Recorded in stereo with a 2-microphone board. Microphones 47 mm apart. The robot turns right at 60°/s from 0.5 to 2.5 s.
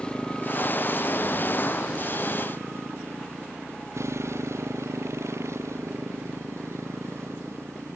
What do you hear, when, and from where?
0.0 s a motorcycle: 165° left; by 8.0 s 75° right